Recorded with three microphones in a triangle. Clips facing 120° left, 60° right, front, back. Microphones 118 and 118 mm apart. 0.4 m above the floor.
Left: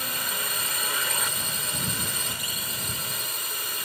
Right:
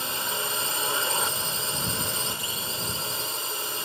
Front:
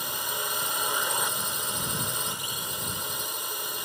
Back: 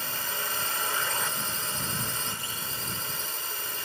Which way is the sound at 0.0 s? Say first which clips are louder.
Right 2 dB, front 2 dB; 55° right.